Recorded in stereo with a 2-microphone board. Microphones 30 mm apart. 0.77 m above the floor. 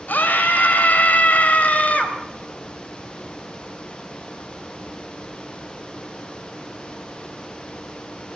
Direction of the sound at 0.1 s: 75° left (ahead or behind).